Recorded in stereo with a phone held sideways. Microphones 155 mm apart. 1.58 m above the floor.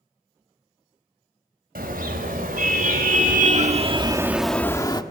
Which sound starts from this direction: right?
A car horn, at 1.8 s.